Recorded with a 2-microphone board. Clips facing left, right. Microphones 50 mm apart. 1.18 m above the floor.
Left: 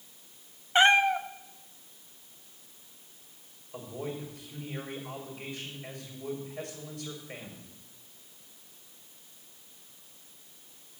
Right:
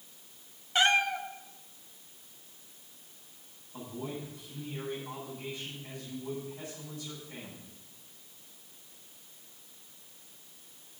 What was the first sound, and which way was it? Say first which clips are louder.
A cat meowing: left 5 dB; 25° left (ahead or behind).